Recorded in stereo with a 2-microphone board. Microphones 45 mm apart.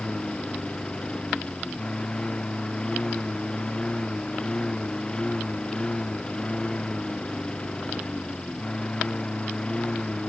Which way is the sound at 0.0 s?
20° left (ahead or behind).